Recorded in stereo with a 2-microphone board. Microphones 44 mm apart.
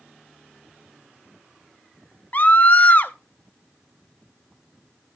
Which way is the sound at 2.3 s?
40° left (ahead or behind).